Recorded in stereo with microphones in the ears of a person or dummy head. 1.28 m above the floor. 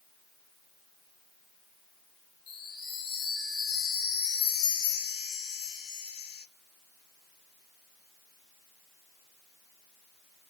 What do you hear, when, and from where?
2.5 s a chime: 65° left (ahead or behind), 1.4 m